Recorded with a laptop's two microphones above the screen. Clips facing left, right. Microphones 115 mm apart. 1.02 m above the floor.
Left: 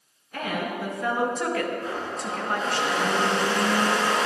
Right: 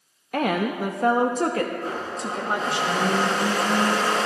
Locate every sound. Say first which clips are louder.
0.3 s a woman speaking: right 6 dB; 70° right (ahead or behind), 0.8 m; by 2.8 s 15° right (ahead or behind), 1.6 m
1.8 s a blender: right 1 dB; 35° right (ahead or behind), 5 m